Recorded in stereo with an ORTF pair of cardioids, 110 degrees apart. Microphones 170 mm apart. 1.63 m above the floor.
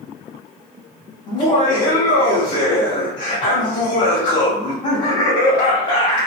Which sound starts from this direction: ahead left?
Laughter, at 1.3 s.